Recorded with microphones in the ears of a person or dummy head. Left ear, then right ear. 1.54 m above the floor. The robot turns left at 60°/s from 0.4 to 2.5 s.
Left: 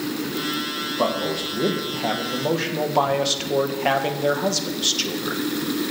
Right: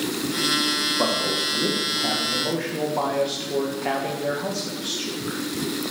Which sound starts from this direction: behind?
A man speaking, at 1.0 s.